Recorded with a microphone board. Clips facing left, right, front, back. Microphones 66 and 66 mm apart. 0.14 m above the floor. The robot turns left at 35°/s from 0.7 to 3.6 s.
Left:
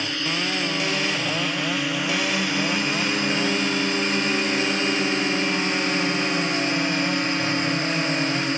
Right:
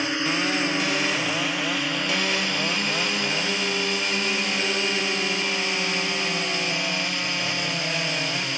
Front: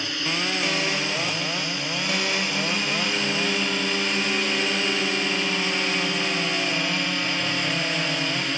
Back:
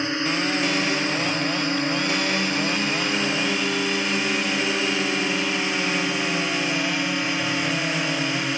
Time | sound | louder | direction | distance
0.0 | a drone | right 2 dB, back 4 dB | 145° right | ?